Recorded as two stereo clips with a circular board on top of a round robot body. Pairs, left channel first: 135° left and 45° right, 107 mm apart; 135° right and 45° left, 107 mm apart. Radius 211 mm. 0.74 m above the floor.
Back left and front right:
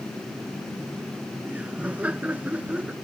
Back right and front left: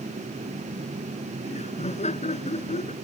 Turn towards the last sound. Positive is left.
turn(degrees=-125)